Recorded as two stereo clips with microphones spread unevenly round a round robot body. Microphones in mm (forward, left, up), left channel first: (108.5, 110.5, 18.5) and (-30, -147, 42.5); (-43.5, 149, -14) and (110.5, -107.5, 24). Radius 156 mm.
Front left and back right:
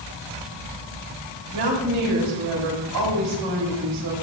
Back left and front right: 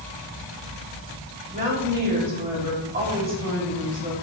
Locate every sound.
1.5 s a woman speaking: 125° right, 3.5 m